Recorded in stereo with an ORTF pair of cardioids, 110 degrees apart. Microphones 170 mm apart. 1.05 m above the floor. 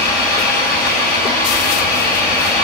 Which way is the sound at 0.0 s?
70° left.